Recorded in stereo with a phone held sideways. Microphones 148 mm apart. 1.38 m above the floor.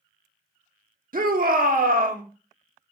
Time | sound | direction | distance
1.1 | a shout | 75° right (ahead or behind) | 1.3 m